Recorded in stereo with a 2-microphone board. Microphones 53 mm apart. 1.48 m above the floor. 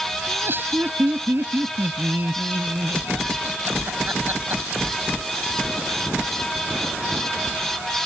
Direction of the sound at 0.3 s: 45° right (ahead or behind).